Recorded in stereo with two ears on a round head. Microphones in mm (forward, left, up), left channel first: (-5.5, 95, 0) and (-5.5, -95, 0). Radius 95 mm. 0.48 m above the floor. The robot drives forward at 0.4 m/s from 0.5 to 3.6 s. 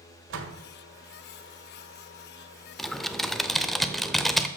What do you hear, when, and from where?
0.3 s a door slam: 60° right (ahead or behind), 1.6 m
2.8 s typing on a keyboard: centre (ahead or behind), 0.5 m